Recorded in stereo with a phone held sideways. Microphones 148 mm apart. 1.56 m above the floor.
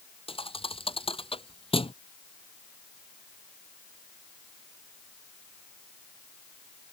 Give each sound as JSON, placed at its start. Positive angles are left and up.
{"t": 0.3, "sound": "a thud", "side_deg": 40}